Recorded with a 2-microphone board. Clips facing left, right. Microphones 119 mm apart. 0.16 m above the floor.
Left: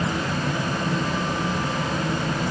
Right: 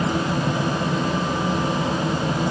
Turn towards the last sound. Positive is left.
No sound to turn to.